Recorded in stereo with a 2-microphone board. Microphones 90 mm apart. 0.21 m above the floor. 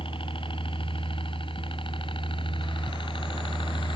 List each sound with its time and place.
0.0 s a helicopter: 70° left (ahead or behind); by 4.0 s 65° left (ahead or behind)